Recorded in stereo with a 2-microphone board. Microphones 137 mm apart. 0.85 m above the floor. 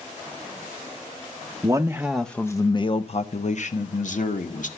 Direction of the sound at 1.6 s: 25° right (ahead or behind).